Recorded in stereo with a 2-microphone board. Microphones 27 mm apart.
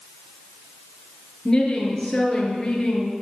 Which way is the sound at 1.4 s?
25° left (ahead or behind).